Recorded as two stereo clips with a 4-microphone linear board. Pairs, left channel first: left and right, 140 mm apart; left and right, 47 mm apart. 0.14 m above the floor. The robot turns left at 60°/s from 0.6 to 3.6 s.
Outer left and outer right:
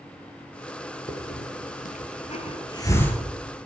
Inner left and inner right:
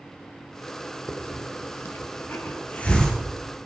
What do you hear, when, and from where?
1.1 s a hiss: 45° left (ahead or behind), 2 m; by 3.2 s 5° left (ahead or behind), 2 m